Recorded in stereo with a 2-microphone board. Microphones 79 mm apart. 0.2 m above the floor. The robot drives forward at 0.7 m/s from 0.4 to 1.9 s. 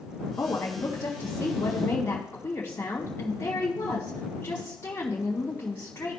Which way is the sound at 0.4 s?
30° left (ahead or behind).